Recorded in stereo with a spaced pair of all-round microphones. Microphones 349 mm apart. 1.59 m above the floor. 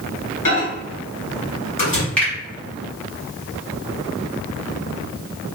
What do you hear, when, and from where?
0.5 s a microwave: 70° left (ahead or behind), 1.7 m
2.2 s a finger snap: 5° left (ahead or behind), 1.4 m